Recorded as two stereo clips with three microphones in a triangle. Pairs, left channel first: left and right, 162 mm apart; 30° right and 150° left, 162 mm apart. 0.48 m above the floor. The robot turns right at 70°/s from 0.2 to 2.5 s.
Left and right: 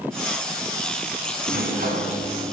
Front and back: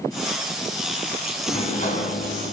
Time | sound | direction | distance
1.5 | a sliding door | 95° right | 3 m